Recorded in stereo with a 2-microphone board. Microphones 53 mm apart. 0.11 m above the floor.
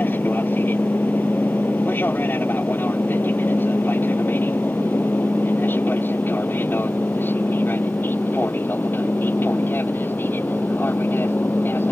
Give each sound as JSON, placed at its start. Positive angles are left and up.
{"t": 0.0, "sound": "an aircraft", "side_deg": 40}